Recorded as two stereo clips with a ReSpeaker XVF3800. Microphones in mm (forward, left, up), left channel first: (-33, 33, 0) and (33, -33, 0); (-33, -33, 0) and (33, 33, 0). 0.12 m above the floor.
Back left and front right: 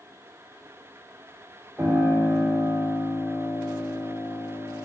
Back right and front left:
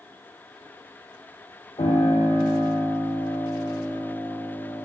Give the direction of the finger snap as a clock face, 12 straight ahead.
I don't hear a finger snap.